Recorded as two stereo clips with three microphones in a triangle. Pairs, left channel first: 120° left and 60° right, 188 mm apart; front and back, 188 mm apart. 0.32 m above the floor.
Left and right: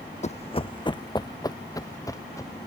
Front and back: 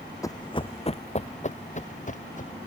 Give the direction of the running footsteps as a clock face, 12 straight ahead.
10 o'clock.